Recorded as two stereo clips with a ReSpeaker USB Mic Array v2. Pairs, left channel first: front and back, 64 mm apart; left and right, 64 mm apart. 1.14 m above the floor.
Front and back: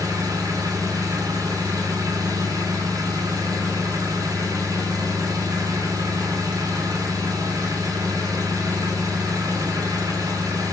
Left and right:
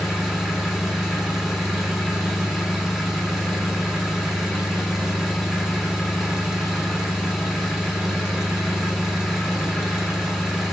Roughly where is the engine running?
Behind.